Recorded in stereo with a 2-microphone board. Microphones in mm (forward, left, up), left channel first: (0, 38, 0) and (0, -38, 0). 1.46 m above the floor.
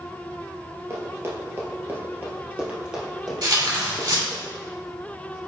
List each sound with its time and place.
0.9 s running footsteps: 40° right (ahead or behind), 1.9 m; by 4.4 s 5° left (ahead or behind), 2.5 m
3.4 s tearing paper: 70° right (ahead or behind), 2 m